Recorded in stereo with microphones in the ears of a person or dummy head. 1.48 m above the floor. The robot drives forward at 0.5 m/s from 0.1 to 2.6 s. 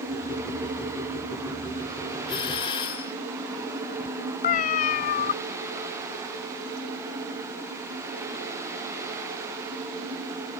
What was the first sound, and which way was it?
A doorbell, 25° left (ahead or behind).